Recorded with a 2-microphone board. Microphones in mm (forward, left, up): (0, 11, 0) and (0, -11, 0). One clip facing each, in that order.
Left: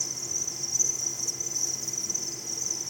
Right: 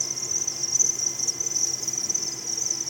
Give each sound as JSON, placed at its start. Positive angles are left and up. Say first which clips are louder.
{"t": 0.0, "sound": "an insect", "louder": "right 4 dB", "side_deg": -35, "distance_m": 2.0}